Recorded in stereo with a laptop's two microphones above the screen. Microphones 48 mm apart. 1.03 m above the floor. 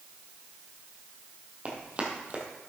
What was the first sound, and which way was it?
Running footsteps, 30° right (ahead or behind).